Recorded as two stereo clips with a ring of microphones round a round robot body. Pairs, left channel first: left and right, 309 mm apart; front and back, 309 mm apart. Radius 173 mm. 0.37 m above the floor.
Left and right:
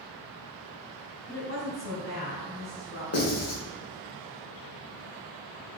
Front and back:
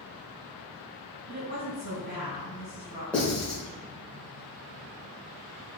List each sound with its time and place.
1.3 s a woman speaking: 125° left, 1.9 m
3.1 s writing: 85° left, 1.6 m